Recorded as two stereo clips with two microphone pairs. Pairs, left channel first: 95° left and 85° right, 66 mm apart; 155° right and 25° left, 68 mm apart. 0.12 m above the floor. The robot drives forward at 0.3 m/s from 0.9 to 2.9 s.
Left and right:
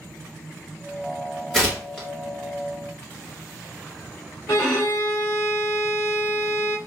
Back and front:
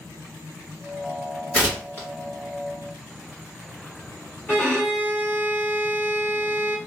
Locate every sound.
1.5 s tearing paper: 175° left, 2.0 m
4.5 s a violin: 140° left, 1.5 m